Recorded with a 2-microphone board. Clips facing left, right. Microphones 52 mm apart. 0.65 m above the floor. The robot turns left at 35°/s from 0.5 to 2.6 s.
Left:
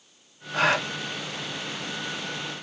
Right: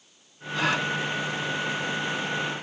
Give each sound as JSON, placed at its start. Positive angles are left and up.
{"t": 0.5, "sound": "a gasp", "side_deg": 65, "distance_m": 1.6}